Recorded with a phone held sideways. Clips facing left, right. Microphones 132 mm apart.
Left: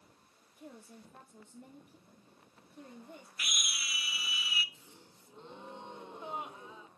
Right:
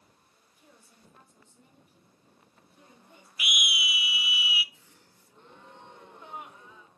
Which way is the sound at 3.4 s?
10° right (ahead or behind).